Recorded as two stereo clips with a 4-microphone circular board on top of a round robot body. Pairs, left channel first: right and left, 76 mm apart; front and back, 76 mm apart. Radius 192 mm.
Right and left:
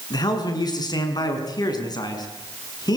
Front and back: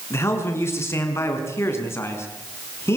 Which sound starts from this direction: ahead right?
A man speaking, at 0.1 s.